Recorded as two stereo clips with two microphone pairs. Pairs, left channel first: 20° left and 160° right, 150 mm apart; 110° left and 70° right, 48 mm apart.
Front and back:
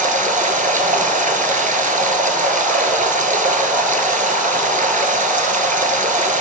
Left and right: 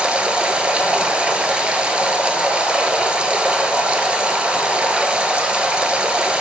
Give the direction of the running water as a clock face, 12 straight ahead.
5 o'clock.